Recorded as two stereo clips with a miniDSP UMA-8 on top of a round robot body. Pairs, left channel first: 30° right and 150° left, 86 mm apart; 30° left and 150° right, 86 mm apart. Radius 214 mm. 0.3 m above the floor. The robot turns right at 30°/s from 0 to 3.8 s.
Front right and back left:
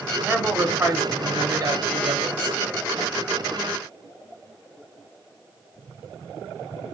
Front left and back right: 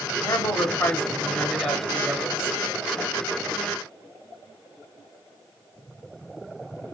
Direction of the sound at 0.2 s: 70° left.